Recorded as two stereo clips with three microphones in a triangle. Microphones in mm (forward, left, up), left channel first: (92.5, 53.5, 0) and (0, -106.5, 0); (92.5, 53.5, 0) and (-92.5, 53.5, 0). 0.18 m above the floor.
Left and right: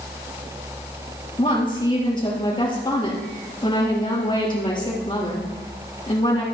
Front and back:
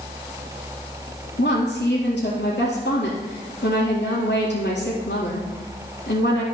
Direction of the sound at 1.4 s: 5° right.